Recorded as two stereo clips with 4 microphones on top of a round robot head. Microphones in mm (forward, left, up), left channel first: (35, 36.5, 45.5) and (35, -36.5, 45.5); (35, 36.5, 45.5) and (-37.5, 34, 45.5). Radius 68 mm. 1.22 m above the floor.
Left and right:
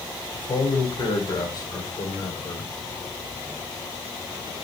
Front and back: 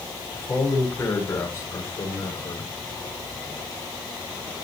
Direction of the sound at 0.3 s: 65° left.